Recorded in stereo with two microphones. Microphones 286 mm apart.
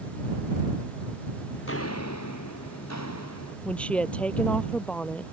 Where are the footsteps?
40° left (ahead or behind); by 3.5 s 70° left (ahead or behind).